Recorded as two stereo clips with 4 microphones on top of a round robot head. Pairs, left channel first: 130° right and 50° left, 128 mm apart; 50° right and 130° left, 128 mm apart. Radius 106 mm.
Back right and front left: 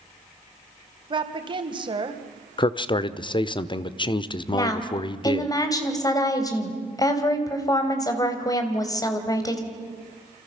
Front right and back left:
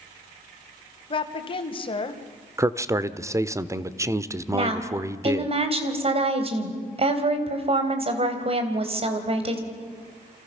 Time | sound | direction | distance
1.1 | a woman speaking | straight ahead | 2.5 m
2.6 | a man speaking | 170° right | 1.1 m
4.5 | a woman speaking | 170° left | 3 m